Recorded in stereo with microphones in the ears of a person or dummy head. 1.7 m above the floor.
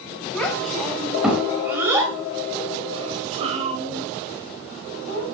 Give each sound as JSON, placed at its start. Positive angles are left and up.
{"t": 0.3, "sound": "a child speaking", "side_deg": 10, "distance_m": 5.5}